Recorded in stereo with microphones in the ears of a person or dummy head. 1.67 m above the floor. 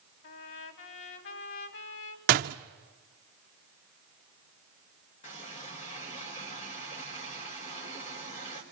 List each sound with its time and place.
0.2 s a trumpet: 65° left (ahead or behind), 3 m
2.3 s a door slam: 40° right (ahead or behind), 0.9 m
5.2 s a running tap: 35° left (ahead or behind), 4.5 m